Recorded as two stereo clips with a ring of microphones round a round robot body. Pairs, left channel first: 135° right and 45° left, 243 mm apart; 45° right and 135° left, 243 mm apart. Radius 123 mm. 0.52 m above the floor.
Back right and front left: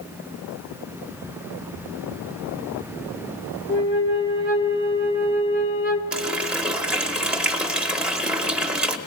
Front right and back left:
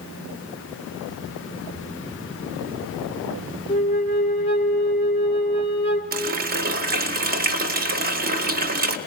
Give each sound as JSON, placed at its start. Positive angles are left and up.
{"t": 3.7, "sound": "a flute", "azimuth_deg": -100, "distance_m": 0.8}
{"t": 6.1, "sound": "a running tap", "azimuth_deg": 130, "distance_m": 0.7}